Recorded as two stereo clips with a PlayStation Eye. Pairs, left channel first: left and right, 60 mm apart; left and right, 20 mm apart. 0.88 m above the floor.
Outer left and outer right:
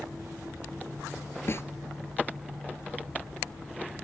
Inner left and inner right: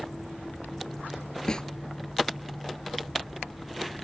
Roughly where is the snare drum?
Left.